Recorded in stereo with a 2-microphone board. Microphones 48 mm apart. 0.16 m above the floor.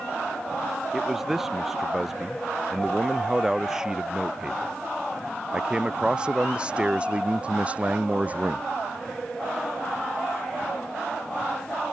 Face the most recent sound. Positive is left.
turn(degrees=-30)  # may be behind; listen again after turning